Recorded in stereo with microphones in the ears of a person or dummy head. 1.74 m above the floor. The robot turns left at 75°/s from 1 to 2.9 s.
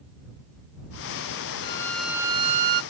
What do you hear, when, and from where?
1.6 s a violin: 30° left; by 2.8 s 60° right